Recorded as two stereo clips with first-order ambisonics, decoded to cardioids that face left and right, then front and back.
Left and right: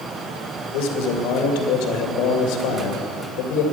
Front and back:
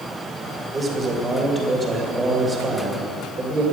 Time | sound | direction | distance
0.7 | a man speaking | 105° left | 2.5 m